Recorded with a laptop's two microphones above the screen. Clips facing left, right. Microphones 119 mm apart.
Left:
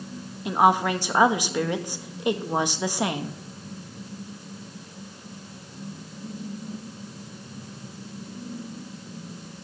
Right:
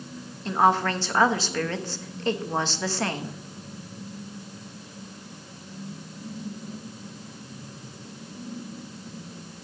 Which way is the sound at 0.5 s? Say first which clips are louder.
Left 1 dB; 10° left (ahead or behind).